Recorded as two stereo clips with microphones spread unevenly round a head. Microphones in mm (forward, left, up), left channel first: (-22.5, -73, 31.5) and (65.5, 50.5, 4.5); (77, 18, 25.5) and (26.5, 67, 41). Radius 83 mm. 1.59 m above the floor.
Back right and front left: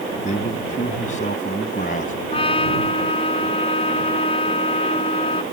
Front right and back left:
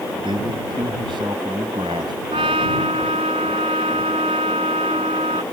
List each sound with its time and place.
0.2 s a man speaking: 175° right; by 2.1 s 170° right
2.3 s a trumpet: 175° left